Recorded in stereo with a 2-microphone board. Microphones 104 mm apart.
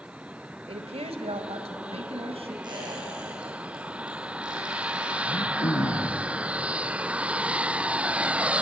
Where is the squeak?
45° right (ahead or behind), 7 m.